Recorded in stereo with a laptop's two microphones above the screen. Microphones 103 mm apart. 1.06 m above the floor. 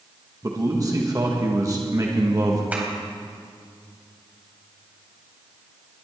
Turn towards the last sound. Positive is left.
turn(degrees=-15)  # may be behind; listen again after turning